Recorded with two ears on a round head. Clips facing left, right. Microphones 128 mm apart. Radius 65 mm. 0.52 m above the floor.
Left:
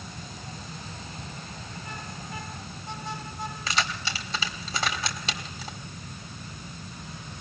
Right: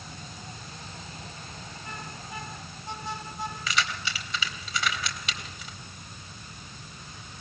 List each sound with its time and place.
3.7 s keys jangling: 30° left (ahead or behind), 1.8 m